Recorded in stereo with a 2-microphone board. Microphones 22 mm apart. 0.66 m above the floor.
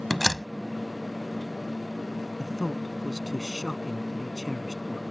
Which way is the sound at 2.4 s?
5° right (ahead or behind).